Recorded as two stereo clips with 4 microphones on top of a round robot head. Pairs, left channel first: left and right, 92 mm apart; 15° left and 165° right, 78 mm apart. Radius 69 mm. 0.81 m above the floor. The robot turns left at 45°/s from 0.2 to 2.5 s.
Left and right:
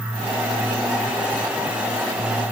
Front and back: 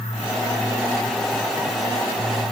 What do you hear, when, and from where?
Only background noise.